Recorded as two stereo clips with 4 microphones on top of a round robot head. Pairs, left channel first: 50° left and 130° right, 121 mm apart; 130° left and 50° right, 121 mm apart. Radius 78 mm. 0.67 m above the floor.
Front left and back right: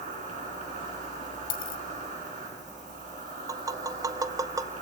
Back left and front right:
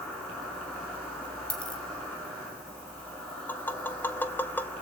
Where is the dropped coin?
50° left, 2.0 m.